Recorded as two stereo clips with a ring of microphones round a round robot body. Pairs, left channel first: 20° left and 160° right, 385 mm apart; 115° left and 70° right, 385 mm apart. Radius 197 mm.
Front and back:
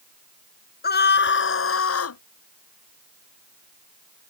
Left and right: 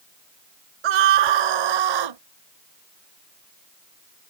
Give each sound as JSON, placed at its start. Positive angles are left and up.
{"t": 0.8, "sound": "a scream", "azimuth_deg": -45}